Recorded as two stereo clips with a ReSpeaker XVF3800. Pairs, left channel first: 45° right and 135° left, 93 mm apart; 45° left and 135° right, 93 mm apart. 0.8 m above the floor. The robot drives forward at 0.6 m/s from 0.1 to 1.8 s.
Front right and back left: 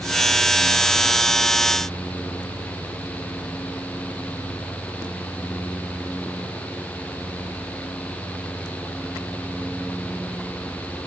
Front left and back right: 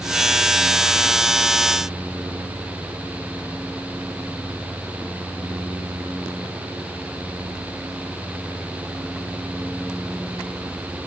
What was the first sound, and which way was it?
Only background noise.